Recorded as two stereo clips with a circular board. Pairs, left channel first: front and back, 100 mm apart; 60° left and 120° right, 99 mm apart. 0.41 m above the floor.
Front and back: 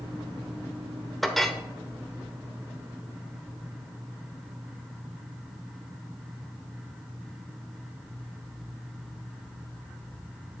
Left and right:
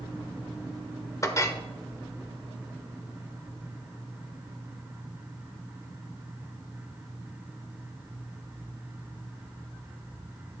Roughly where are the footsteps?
I don't hear footsteps.